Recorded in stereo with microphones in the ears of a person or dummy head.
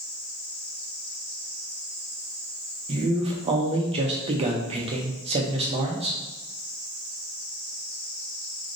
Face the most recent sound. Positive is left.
turn(degrees=-30)  # may be behind; listen again after turning